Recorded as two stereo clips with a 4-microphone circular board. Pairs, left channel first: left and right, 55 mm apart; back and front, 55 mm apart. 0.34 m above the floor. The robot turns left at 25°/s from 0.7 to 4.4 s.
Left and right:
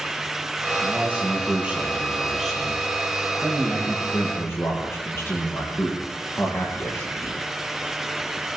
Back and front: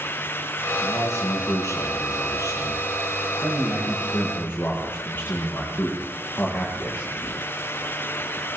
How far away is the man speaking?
About 9.5 m.